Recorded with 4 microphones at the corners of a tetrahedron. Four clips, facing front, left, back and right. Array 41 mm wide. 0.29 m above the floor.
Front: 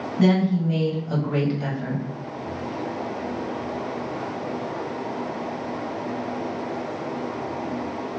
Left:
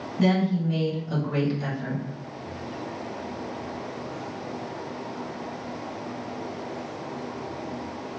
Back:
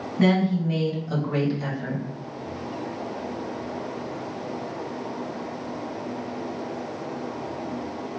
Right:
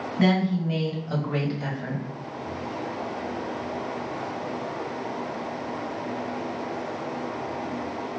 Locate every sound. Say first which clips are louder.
0.2 s a woman speaking: even, front 1 dB; 105° right, 1.9 m; by 2.0 s 15° right, 1.8 m